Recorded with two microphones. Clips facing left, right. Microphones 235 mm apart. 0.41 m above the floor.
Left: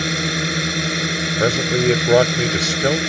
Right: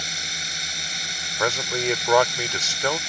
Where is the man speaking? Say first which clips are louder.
Left 8 dB; 40° left (ahead or behind).